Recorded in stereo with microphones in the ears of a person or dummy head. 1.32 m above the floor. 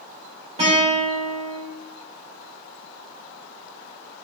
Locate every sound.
0.6 s a guitar: 30° right (ahead or behind), 3 m